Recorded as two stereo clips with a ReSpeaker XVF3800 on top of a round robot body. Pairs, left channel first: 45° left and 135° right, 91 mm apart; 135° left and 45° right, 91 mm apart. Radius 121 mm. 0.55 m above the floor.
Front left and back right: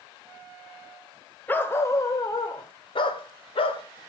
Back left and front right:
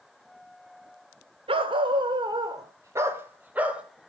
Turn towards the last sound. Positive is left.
turn(degrees=35)